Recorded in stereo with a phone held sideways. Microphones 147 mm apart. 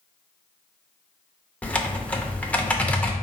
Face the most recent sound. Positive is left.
turn(degrees=10)  # may be behind; listen again after turning